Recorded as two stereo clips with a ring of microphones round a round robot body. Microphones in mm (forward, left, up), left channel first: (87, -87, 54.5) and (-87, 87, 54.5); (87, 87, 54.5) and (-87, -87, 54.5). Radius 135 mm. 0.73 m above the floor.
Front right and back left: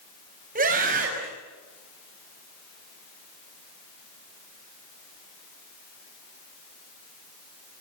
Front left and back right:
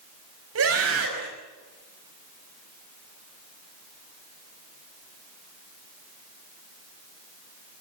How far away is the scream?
About 5.5 m.